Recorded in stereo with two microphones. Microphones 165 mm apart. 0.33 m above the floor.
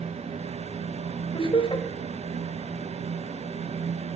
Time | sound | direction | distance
1.3 | laughter | 35° left (ahead or behind) | 1.2 m